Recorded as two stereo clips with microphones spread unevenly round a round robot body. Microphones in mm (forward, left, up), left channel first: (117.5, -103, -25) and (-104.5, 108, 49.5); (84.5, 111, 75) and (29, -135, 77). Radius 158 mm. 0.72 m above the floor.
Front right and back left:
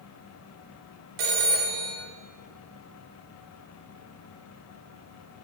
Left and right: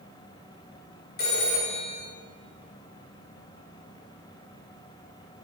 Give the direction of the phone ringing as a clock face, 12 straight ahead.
8 o'clock.